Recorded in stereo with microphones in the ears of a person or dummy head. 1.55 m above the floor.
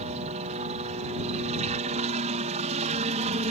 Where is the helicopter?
35° right (ahead or behind).